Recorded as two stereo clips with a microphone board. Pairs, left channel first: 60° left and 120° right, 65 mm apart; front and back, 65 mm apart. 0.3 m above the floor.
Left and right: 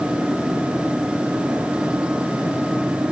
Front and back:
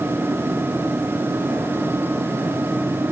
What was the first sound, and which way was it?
Only background noise.